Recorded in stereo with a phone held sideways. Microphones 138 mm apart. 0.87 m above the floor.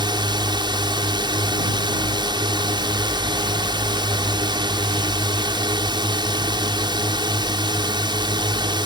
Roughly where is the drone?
Right.